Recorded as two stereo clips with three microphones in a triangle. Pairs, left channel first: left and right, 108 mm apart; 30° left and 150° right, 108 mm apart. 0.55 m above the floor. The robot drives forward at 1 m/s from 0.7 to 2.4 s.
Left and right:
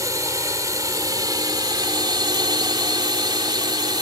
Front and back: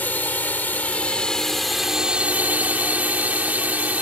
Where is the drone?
40° right; by 4.0 s 80° right.